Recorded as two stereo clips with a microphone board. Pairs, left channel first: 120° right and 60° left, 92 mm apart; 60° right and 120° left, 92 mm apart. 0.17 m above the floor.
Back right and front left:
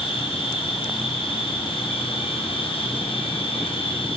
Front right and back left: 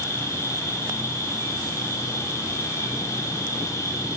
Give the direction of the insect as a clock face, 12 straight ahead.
4 o'clock.